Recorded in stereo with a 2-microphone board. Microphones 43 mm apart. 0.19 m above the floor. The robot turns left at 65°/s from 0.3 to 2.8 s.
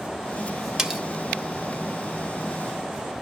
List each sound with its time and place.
0.8 s cutlery clinking: 10° right (ahead or behind), 0.5 m